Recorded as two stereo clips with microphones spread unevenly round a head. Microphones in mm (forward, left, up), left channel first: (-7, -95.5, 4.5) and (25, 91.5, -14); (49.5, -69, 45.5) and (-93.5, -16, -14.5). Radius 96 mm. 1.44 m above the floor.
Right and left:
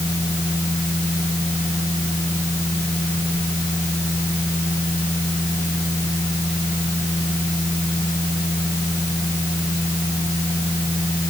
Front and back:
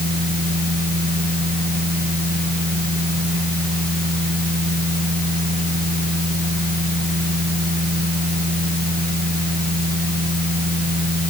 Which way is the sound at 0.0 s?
175° right.